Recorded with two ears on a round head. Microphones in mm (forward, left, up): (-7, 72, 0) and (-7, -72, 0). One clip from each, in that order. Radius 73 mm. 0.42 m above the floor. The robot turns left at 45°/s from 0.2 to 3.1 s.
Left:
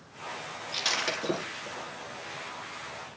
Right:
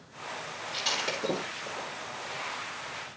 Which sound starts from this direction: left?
Breaking glass, at 0.7 s.